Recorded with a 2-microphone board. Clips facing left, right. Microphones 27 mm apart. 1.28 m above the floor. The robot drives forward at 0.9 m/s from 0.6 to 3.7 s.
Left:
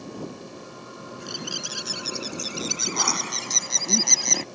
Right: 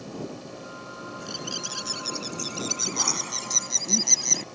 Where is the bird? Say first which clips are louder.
Left 2 dB; 20° left (ahead or behind); by 4.5 s 30° left (ahead or behind).